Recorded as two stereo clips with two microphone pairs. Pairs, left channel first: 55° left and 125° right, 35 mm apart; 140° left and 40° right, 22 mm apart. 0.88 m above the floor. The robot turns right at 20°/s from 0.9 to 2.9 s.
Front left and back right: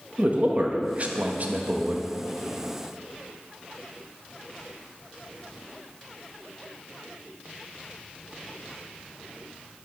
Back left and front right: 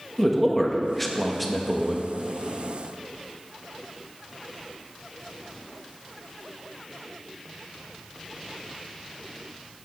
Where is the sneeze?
I don't hear a sneeze.